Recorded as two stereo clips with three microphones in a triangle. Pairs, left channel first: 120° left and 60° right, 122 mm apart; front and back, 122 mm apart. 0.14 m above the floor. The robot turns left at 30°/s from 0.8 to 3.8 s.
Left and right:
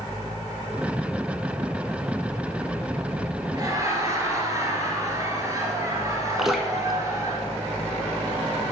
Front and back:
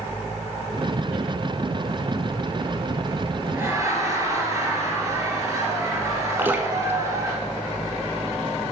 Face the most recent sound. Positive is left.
turn(degrees=-145)